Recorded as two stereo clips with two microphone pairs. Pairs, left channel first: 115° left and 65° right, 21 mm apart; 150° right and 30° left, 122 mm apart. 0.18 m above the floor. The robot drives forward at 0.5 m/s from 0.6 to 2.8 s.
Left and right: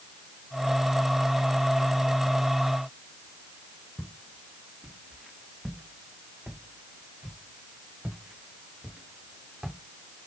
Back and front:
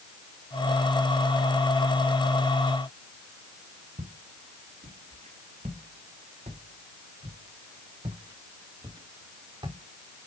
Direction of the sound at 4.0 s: 35° left.